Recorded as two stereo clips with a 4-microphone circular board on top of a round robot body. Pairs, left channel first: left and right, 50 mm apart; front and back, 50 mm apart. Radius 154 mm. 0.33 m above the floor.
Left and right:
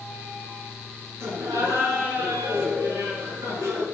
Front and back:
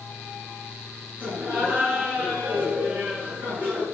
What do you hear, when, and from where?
1.2 s laughter: 120° right, 7.5 m